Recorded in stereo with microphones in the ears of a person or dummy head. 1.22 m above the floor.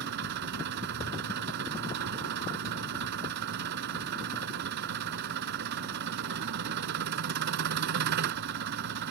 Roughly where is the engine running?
Right.